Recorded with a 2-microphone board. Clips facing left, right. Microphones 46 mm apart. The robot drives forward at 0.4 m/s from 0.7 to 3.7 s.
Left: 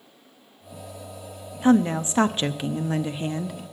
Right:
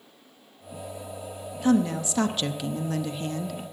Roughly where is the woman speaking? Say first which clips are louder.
Left 3 dB; left.